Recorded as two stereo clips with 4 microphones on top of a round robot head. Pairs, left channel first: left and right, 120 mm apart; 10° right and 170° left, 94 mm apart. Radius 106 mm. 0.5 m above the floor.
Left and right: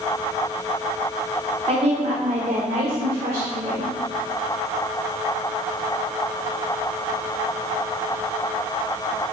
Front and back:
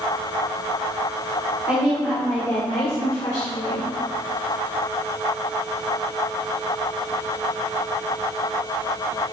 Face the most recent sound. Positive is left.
turn(degrees=-50)